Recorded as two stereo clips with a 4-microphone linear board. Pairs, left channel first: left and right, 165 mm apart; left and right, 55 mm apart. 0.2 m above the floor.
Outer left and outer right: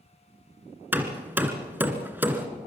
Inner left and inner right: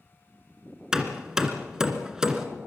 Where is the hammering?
10° right (ahead or behind), 2 m.